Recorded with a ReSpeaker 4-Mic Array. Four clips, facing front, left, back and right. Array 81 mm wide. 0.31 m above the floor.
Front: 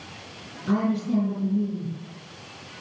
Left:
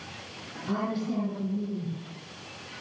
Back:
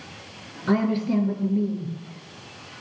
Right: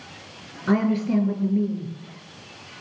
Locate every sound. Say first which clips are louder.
0.7 s a woman speaking: right 9 dB, back 2 dB; 115° right, 5.5 m